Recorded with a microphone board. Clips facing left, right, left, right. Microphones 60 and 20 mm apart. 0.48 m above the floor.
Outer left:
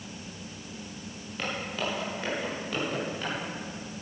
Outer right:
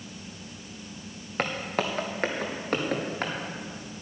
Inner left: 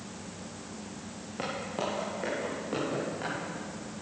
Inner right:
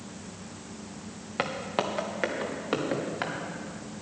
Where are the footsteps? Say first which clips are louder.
Outer right 4 dB, inner right 4 dB; 55° right (ahead or behind), 2 m; by 3.3 s 50° right (ahead or behind), 4 m.